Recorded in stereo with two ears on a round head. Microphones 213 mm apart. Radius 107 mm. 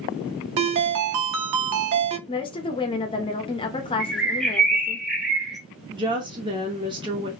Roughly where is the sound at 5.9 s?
Centre.